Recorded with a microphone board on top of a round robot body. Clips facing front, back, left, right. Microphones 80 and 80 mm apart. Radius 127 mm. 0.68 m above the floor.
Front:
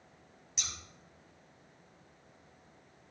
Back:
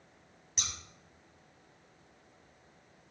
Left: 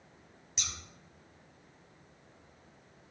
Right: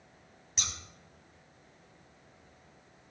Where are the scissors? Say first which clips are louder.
Back 3 dB, right 3 dB; 135° right, 6.5 m.